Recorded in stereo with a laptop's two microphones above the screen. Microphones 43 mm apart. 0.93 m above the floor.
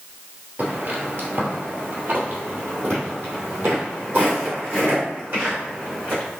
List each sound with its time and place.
0.6 s footsteps: 40° right (ahead or behind), 1.2 m